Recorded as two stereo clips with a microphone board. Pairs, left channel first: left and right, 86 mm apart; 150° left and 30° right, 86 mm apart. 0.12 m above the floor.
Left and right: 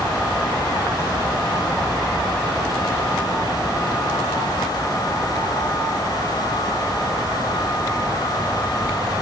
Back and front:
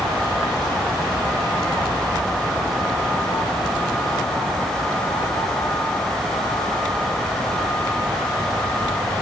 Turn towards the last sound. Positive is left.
No sound to turn to.